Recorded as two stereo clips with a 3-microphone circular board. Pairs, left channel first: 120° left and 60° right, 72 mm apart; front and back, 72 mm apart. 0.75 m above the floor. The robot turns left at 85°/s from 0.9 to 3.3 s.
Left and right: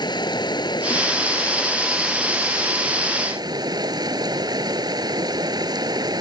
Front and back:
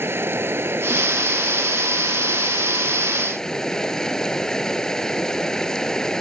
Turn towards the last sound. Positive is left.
turn(degrees=-80)